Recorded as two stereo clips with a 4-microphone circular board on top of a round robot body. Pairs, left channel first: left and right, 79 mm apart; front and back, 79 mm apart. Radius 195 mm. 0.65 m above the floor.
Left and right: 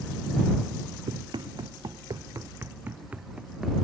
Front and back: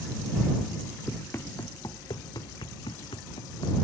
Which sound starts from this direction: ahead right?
Running footsteps, at 1.1 s.